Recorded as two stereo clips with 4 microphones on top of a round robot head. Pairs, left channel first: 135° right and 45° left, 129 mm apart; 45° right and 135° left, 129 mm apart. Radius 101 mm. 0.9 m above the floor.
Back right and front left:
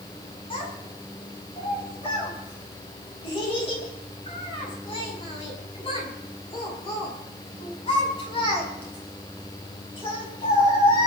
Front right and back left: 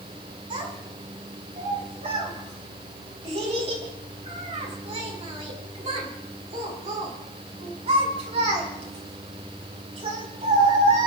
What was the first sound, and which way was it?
A child speaking, straight behind.